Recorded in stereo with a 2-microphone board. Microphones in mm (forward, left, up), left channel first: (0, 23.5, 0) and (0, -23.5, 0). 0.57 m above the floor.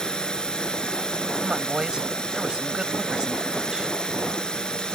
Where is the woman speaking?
20° right (ahead or behind).